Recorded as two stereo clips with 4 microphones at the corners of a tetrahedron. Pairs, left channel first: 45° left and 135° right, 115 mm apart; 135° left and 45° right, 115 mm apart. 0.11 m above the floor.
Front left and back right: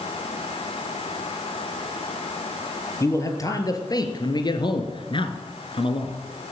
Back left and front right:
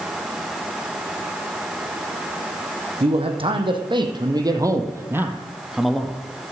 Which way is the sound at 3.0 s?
15° right.